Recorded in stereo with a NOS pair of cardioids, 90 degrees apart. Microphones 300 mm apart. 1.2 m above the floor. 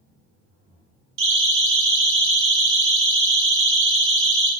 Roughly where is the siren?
Ahead right.